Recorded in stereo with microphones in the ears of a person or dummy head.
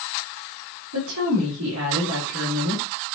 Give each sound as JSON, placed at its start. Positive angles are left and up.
{"t": 0.9, "sound": "a woman speaking", "side_deg": -85, "distance_m": 5.0}